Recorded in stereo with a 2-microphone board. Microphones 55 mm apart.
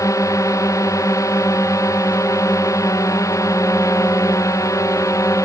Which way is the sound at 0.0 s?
85° left.